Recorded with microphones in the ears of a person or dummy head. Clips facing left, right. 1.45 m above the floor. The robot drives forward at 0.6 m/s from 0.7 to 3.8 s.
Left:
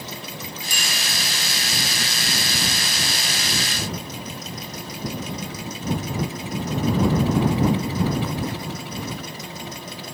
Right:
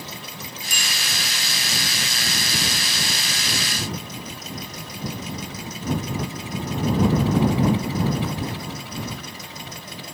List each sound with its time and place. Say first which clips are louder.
0.7 s a bicycle bell: even; 80° left, 3 m